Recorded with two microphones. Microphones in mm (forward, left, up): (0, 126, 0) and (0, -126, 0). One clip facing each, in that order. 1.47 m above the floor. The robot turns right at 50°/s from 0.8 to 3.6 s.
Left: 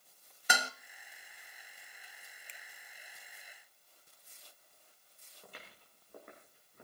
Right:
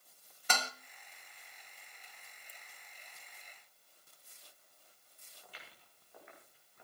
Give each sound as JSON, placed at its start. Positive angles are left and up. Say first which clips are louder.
{"t": 0.5, "sound": "dishes clattering", "louder": "left 1 dB", "side_deg": 10, "distance_m": 1.3}
{"t": 2.5, "sound": "a finger snap", "louder": "left 1 dB", "side_deg": 75, "distance_m": 1.2}
{"t": 5.4, "sound": "footsteps", "louder": "left 4 dB", "side_deg": 50, "distance_m": 8.5}